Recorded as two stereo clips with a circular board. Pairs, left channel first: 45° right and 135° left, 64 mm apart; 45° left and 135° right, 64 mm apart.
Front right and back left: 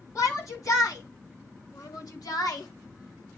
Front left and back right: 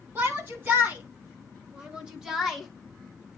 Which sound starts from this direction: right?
A shout, at 0.1 s.